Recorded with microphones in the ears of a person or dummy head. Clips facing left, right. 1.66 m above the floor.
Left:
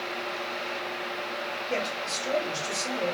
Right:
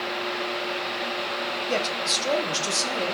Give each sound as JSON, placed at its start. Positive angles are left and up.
{"t": 1.7, "sound": "a man speaking", "side_deg": -60, "distance_m": 0.8}